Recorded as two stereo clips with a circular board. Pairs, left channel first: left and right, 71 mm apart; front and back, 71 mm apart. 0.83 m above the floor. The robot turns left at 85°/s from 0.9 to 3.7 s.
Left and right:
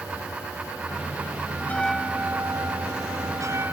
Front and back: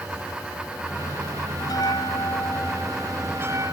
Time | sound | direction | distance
1.6 | a bell | 30° left | ?